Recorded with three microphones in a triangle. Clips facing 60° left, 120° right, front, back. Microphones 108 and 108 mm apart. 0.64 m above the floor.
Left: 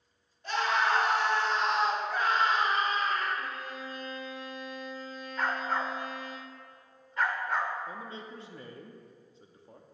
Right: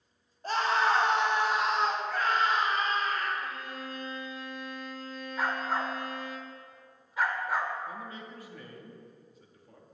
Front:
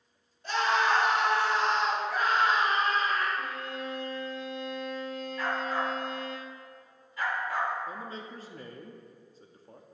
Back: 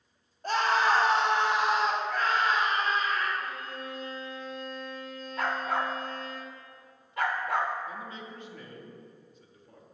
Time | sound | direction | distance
0.4 | a scream | 155° right | 1.2 m
3.4 | a violin | 5° left | 0.9 m
5.4 | a dog barking | 155° left | 0.6 m
7.9 | a man speaking | 20° left | 0.7 m